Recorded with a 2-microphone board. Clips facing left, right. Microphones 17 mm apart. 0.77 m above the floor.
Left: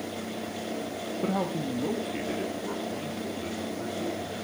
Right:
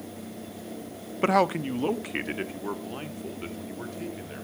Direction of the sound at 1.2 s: 55° right (ahead or behind).